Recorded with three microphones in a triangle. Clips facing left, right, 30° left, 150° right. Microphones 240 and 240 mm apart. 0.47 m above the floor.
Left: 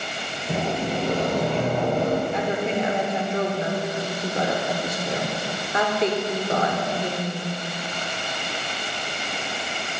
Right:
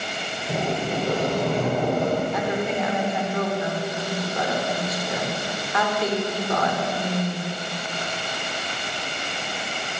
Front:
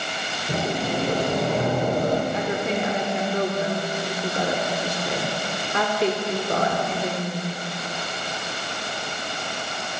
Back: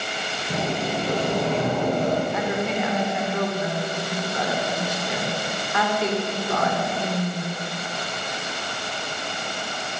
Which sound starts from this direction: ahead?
A sliding door, at 0.5 s.